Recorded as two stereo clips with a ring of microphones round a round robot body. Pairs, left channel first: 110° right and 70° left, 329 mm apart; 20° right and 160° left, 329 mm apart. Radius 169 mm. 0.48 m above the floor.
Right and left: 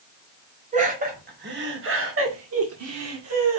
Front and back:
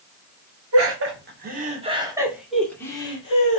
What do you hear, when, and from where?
0.7 s laughter: 130° left, 1.4 m; by 3.6 s 40° left, 1.5 m